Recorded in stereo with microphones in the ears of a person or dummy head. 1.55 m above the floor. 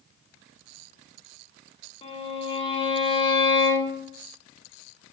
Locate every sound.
2.0 s a violin: 30° left (ahead or behind), 1.7 m